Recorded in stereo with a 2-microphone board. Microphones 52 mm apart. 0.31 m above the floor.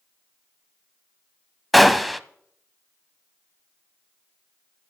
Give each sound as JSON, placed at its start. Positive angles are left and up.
{"t": 1.7, "sound": "a gunshot", "side_deg": 0, "distance_m": 0.5}